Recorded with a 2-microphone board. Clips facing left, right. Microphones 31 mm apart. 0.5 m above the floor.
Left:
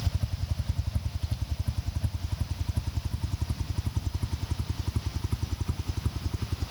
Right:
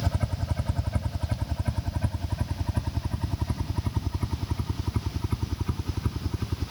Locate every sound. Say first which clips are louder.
0.0 s a helicopter: right 5 dB; 60° right (ahead or behind); by 6.7 s 20° right (ahead or behind)